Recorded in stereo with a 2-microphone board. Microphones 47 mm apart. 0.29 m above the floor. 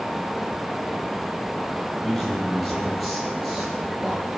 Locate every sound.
2.0 s a man speaking: centre (ahead or behind), 9 m; by 4.3 s 5° right (ahead or behind), 9 m